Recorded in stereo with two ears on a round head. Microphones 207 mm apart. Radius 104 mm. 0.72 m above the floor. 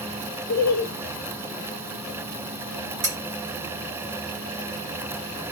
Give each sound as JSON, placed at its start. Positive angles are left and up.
{"t": 0.5, "sound": "laughter", "side_deg": 40, "distance_m": 0.7}
{"t": 3.0, "sound": "cutlery clinking", "side_deg": -35, "distance_m": 2.0}